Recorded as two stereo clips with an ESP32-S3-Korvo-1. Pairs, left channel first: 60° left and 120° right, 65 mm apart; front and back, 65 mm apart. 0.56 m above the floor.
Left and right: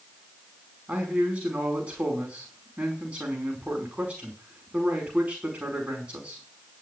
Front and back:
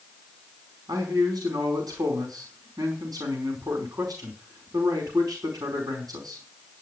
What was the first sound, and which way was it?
A man speaking, 170° left.